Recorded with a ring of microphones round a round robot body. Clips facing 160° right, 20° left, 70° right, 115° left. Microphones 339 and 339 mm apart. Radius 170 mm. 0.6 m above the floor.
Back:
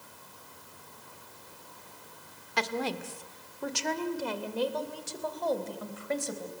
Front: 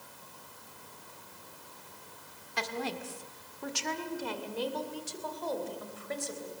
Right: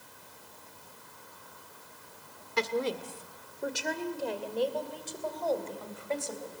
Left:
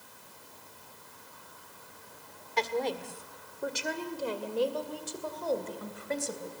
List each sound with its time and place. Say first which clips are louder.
2.6 s a woman speaking: back 4 dB, right 1 dB; 140° right, 1.7 m; by 6.5 s straight behind, 3.5 m